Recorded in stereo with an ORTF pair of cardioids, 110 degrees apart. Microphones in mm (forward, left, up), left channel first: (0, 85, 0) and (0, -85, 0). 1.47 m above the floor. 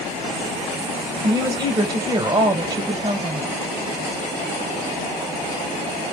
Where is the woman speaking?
25° right, 1.4 m.